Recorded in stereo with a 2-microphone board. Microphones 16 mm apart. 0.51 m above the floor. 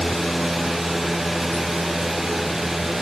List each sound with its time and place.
Only background noise.